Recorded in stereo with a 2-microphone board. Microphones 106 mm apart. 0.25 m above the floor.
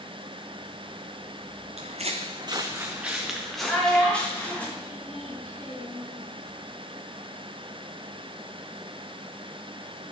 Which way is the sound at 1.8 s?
80° right.